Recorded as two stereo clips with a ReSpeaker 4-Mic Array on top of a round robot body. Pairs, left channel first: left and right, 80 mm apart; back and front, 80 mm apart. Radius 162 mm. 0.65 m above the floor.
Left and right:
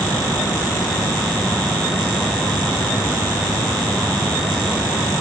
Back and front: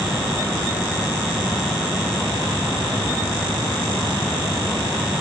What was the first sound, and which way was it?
Only background noise.